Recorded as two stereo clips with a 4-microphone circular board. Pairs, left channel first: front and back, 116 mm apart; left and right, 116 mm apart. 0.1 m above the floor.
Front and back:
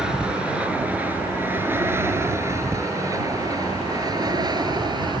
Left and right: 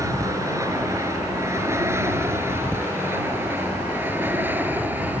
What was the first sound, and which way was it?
An aircraft, 105° right.